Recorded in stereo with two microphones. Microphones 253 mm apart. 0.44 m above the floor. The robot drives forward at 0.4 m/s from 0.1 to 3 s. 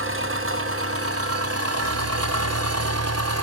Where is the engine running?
55° right (ahead or behind), 1.7 m; by 3.4 s 75° right (ahead or behind), 1.5 m.